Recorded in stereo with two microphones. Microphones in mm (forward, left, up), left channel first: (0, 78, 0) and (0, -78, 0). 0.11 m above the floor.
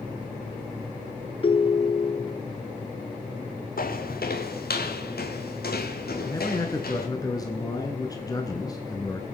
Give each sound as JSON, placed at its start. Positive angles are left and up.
{"t": 1.4, "sound": "a ringtone", "side_deg": 35, "distance_m": 0.8}
{"t": 3.8, "sound": "footsteps", "side_deg": 65, "distance_m": 1.6}
{"t": 6.2, "sound": "a man speaking", "side_deg": 25, "distance_m": 1.4}